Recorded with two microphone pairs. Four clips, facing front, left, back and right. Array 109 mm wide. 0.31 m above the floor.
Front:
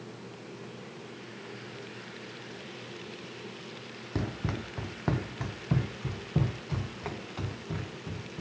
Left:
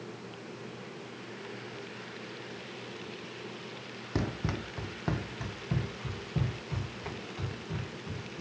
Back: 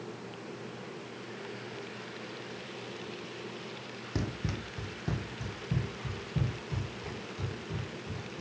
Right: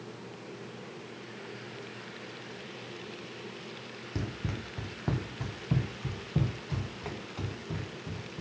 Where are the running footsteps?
60° left, 0.7 m; by 8.4 s 20° right, 3 m.